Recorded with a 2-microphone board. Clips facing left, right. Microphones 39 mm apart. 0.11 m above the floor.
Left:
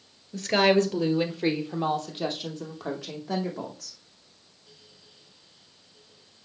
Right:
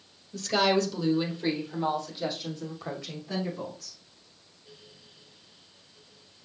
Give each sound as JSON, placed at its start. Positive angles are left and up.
{"t": 0.3, "sound": "a woman speaking", "side_deg": 35, "distance_m": 1.6}